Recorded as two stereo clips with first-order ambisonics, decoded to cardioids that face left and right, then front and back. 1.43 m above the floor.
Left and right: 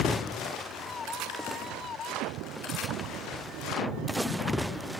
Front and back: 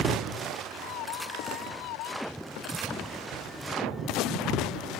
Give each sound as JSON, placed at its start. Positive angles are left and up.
{"t": 0.7, "sound": "a scream", "azimuth_deg": 20}